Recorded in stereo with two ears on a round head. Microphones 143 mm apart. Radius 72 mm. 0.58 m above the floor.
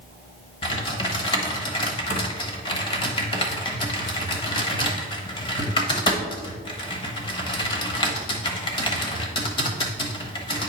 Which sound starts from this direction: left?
Typing on a keyboard, at 0.6 s.